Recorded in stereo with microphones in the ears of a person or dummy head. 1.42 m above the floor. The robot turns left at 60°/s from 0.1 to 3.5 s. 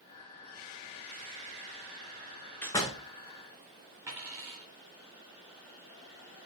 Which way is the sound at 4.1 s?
10° right (ahead or behind).